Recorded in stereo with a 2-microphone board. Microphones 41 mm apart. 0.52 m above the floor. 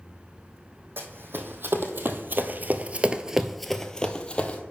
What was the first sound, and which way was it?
Running footsteps, 60° right (ahead or behind).